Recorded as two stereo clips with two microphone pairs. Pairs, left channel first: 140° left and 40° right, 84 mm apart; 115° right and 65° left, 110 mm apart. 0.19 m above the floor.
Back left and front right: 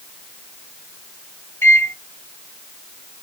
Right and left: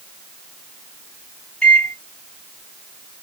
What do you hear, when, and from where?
1.6 s a microwave: 175° left, 1.1 m